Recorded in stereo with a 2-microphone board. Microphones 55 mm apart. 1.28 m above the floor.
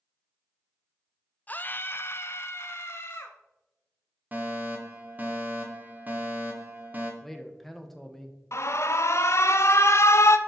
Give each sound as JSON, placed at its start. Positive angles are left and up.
{"t": 1.5, "sound": "a scream", "side_deg": 30, "distance_m": 0.5}
{"t": 4.3, "sound": "a fire alarm", "side_deg": -30, "distance_m": 1.6}
{"t": 7.2, "sound": "a man speaking", "side_deg": 5, "distance_m": 1.2}
{"t": 8.5, "sound": "an alarm", "side_deg": 55, "distance_m": 0.6}